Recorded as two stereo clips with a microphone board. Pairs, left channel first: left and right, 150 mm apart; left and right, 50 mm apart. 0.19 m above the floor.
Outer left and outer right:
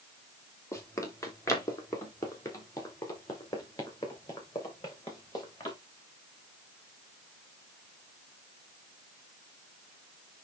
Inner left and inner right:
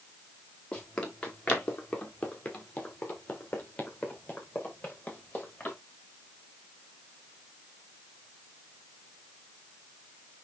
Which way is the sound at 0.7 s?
20° left (ahead or behind).